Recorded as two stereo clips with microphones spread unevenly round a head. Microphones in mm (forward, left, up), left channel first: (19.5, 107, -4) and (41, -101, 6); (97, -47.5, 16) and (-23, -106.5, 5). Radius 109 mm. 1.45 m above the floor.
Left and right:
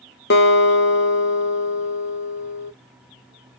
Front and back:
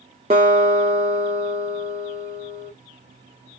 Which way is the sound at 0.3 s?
140° left.